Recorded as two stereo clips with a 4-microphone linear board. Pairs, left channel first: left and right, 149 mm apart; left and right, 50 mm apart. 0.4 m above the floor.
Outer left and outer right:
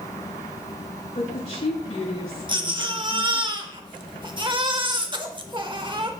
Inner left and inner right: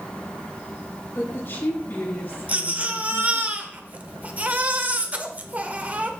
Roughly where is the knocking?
I don't hear knocking.